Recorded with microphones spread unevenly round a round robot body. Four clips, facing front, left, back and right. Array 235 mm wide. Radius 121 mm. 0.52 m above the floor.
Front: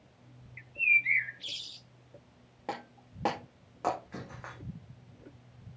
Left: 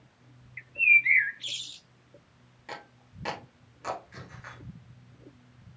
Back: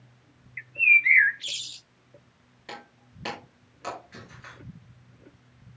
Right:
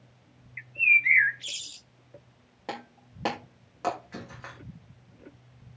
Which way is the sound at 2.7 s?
40° right.